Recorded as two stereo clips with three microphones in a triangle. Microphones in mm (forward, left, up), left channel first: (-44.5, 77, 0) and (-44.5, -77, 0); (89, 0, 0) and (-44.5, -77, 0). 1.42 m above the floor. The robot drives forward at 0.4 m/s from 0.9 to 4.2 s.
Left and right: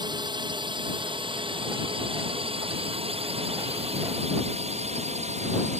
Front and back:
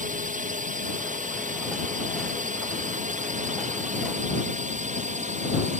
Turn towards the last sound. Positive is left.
turn(degrees=-125)